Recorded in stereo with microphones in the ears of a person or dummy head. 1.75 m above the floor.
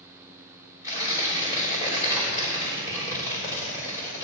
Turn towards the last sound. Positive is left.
turn(degrees=-10)  # may be behind; listen again after turning